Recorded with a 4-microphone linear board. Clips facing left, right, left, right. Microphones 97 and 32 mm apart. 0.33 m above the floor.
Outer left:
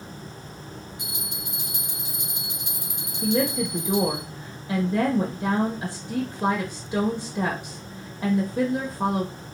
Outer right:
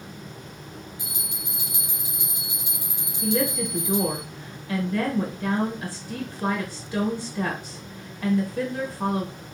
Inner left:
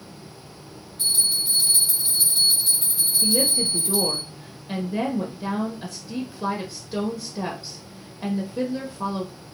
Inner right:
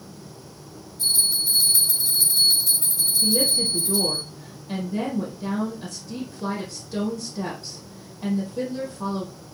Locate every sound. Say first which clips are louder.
1.0 s a bell: outer left 1 dB, inner right 1 dB; 65° left (ahead or behind), 2.5 m
3.2 s a woman speaking: outer left 1 dB, even; 25° left (ahead or behind), 1.0 m